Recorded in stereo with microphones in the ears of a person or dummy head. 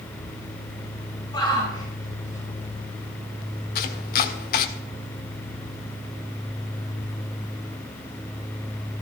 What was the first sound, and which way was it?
A shout, 20° left (ahead or behind).